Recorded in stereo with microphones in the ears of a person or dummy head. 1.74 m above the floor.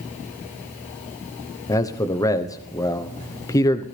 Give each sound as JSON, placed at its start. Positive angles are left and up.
{"t": 1.7, "sound": "a man speaking", "side_deg": 15, "distance_m": 1.0}